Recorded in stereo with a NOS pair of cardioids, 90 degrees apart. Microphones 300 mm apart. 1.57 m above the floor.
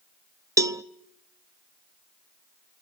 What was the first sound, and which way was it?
A cowbell, 10° right.